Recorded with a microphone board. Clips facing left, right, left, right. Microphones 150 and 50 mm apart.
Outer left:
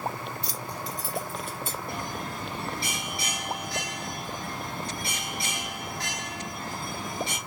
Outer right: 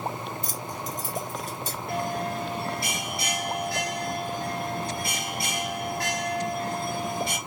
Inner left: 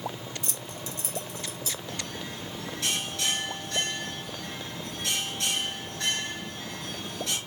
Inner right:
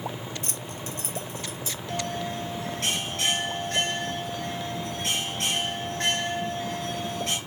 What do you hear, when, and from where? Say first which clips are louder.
0.4 s keys jangling: outer right 1 dB, inner right 2 dB; 50° right (ahead or behind), 0.5 m; by 1.8 s 40° right (ahead or behind), 1.4 m
1.9 s a bell: outer right 6 dB, inner right 6 dB; 50° right (ahead or behind), 2.5 m